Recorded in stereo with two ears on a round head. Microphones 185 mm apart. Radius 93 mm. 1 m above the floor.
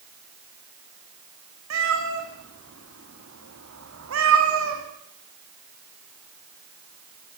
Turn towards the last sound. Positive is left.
turn(degrees=-75)  # may be behind; listen again after turning